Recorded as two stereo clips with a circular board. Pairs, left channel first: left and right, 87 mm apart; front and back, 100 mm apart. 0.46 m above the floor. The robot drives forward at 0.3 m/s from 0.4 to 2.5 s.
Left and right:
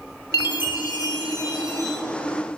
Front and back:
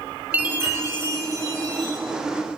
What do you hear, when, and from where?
0.3 s a chime: 110° left, 0.9 m; by 2.0 s 135° left, 1.1 m